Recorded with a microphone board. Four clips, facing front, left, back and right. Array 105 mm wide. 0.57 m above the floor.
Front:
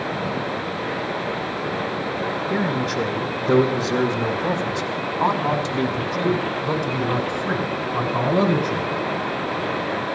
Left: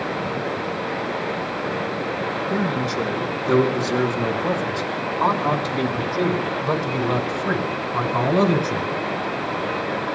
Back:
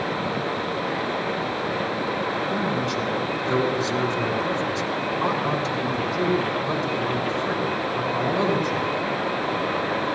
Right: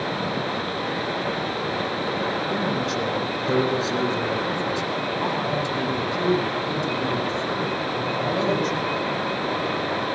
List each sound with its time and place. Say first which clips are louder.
2.5 s a man speaking: left 2 dB, front 2 dB; straight ahead, 4 m; by 8.9 s 60° left, 5.5 m